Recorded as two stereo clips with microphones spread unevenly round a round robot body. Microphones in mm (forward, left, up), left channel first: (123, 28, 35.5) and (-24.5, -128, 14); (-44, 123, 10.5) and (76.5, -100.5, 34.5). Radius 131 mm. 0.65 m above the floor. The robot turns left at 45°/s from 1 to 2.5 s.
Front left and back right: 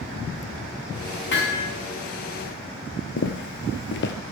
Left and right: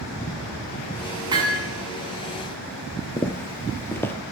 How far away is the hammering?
About 5.5 m.